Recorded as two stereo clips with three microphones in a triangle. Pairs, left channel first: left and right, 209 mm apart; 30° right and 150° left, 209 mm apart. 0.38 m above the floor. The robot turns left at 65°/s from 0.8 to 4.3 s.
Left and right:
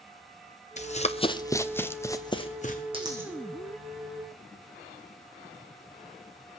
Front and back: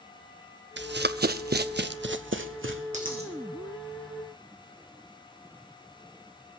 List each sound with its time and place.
0.8 s running footsteps: 140° left, 0.7 m; by 2.8 s 130° left, 1.2 m
2.9 s a dropped coin: 155° right, 2.5 m; by 3.3 s 175° right, 2.5 m